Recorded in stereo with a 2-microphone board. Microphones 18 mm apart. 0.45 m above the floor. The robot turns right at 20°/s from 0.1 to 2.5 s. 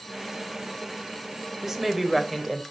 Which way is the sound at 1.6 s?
25° right (ahead or behind).